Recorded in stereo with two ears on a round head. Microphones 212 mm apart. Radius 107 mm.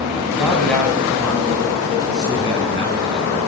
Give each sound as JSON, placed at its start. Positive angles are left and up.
{"t": 0.2, "sound": "a man speaking", "side_deg": 0, "distance_m": 3.0}